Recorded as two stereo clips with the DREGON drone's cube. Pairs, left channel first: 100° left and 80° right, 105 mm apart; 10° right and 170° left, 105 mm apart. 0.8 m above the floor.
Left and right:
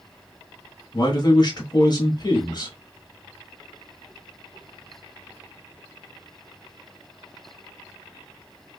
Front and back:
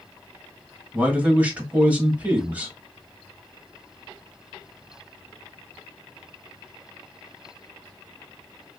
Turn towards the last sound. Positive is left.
turn(degrees=100)